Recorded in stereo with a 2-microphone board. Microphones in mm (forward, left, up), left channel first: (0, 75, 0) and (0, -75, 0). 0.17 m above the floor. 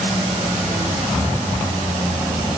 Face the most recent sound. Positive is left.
No sound to turn to.